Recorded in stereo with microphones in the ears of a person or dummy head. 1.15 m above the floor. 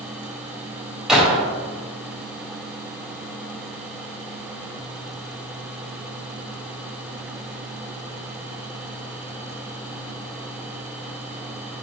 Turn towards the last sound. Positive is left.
turn(degrees=-10)  # may be behind; listen again after turning